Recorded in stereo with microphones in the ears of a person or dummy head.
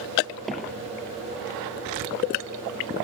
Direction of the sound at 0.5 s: Centre (ahead or behind).